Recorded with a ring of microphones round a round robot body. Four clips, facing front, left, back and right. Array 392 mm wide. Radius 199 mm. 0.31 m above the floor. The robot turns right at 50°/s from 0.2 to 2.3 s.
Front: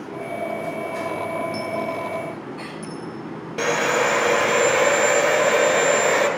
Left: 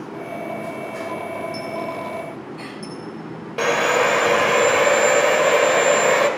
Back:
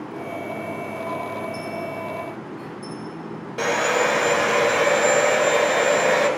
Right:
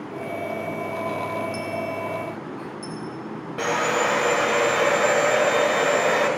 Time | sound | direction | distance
1.5 | a dropped coin | 20° right | 2.5 m
3.6 | sawing | 80° left | 1.5 m